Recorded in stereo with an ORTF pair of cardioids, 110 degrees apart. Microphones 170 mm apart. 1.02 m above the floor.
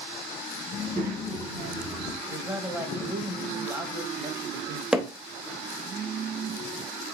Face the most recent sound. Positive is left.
turn(degrees=-5)